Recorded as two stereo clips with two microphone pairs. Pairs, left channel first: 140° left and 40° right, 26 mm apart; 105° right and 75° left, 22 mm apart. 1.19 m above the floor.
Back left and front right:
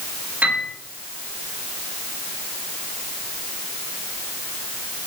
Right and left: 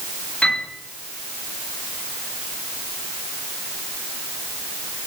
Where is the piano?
60° right, 10 m.